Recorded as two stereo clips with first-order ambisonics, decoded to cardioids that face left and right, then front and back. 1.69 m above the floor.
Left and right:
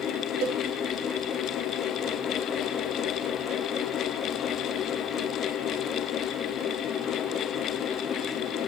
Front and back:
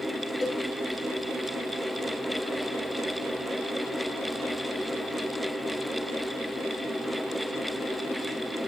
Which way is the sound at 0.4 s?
75° right.